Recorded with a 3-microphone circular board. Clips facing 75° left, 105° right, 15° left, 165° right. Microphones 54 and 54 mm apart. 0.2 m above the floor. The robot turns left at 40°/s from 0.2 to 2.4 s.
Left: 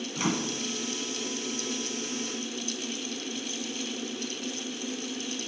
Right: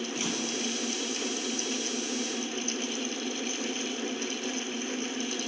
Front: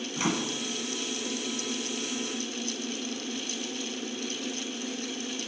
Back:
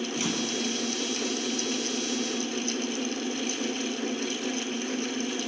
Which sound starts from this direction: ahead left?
A microwave, at 0.2 s.